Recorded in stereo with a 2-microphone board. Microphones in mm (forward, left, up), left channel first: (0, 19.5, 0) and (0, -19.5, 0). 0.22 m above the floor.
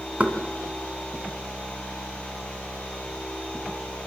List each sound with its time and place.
0.2 s knocking: 45° right (ahead or behind), 2.0 m